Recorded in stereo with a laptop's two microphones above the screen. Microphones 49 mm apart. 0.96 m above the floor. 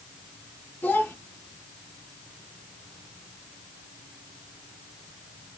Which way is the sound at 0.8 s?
40° left (ahead or behind).